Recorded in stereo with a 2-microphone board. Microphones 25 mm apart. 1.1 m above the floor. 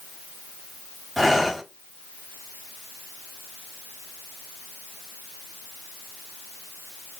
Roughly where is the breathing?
Centre.